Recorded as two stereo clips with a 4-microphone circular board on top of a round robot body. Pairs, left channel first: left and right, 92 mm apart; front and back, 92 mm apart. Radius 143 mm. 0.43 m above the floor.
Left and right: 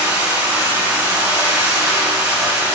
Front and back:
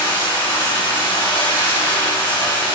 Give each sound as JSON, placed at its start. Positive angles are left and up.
{"t": 0.0, "sound": "running water", "azimuth_deg": -25, "distance_m": 3.5}